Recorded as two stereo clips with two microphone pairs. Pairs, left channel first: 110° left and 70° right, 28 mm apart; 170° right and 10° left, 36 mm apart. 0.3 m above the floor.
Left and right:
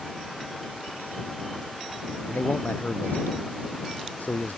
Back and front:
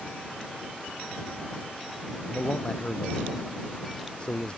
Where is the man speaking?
130° left.